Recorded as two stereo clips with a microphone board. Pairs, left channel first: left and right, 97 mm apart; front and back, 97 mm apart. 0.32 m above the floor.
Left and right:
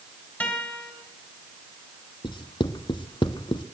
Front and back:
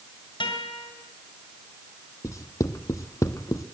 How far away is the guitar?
About 2.5 m.